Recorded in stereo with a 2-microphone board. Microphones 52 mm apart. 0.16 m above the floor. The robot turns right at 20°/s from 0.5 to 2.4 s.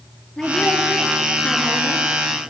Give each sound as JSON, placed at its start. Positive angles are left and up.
{"t": 0.4, "sound": "a woman speaking", "azimuth_deg": 15, "distance_m": 3.5}